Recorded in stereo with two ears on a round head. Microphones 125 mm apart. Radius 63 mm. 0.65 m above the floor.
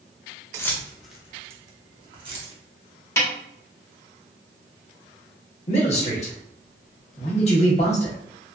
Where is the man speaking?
50° left (ahead or behind), 1.1 m.